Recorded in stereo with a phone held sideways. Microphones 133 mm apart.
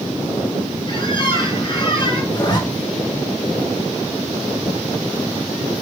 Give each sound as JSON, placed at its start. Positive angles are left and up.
{"t": 0.9, "sound": "a squeak", "side_deg": 40, "distance_m": 3.5}
{"t": 2.3, "sound": "a zipper", "side_deg": 30, "distance_m": 1.4}